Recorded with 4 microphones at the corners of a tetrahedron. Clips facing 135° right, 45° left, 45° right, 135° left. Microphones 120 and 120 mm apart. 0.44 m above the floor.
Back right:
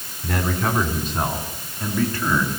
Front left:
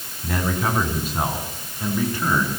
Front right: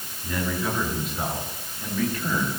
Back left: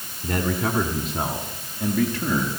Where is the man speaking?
135° left, 4.5 m; by 2.5 s 120° left, 6.5 m.